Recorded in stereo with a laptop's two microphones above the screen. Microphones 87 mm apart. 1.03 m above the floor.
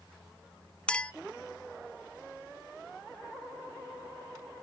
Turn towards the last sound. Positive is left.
turn(degrees=15)  # may be behind; listen again after turning